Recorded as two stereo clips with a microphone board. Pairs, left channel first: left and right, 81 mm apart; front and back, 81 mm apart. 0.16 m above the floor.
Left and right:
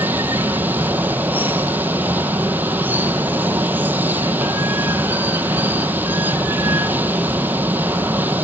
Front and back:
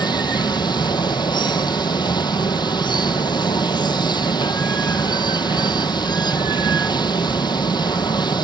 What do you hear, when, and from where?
0.0 s running water: 25° right, 0.9 m